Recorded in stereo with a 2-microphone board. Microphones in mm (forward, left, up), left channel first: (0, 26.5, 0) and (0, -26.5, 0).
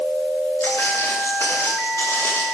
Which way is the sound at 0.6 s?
60° left (ahead or behind).